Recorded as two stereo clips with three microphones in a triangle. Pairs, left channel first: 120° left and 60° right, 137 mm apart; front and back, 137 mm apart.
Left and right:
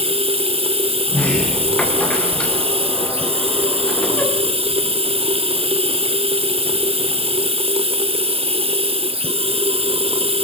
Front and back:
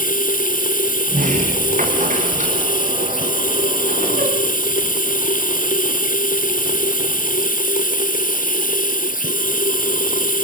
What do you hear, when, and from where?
0.0 s running water: 10° right, 1.0 m
1.1 s a sliding door: 160° right, 5.5 m